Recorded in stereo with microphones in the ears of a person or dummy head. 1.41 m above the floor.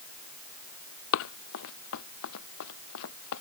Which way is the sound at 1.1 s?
70° left (ahead or behind).